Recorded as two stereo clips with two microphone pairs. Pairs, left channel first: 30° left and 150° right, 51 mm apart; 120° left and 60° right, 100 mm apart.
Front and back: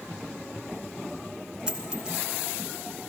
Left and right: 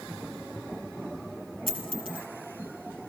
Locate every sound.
1.7 s a dropped coin: 75° right, 2 m